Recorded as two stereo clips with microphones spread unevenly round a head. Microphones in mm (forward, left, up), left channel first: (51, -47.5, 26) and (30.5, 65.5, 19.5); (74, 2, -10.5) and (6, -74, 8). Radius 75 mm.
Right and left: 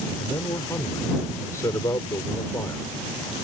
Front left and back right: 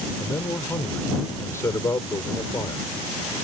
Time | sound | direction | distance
0.2 | a man speaking | 15° right | ?